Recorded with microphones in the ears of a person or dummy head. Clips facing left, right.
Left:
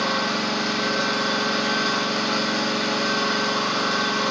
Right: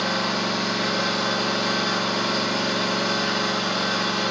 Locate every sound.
0.0 s an engine running: 5° left (ahead or behind), 1.9 m